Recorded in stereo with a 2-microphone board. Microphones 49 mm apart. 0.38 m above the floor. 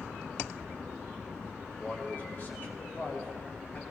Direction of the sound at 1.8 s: 35° left (ahead or behind).